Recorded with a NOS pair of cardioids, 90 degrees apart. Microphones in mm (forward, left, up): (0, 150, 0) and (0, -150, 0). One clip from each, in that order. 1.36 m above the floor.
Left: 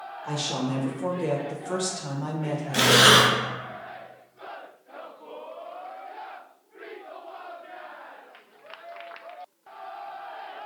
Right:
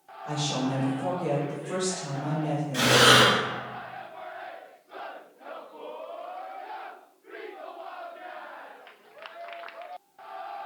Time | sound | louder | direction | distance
0.2 | a woman speaking | even | 30° left | 1.1 m
2.7 | breathing | left 2 dB | 50° left | 0.7 m